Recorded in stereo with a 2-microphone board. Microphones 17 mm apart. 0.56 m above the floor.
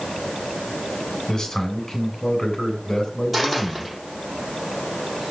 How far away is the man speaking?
About 3 m.